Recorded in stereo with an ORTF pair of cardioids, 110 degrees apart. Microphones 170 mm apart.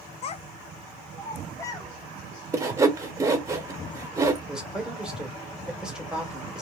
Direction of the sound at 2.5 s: 20° right.